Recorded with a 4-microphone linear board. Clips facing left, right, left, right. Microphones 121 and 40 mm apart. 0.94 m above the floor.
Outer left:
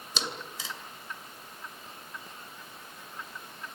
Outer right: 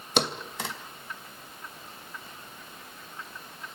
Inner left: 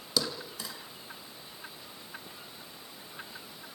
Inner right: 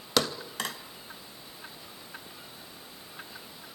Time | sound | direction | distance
0.2 | a thud | 60° right (ahead or behind) | 2.5 m